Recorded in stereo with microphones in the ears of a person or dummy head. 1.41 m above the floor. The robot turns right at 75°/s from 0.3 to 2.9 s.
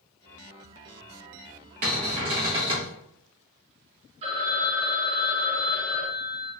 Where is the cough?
No cough in this recording.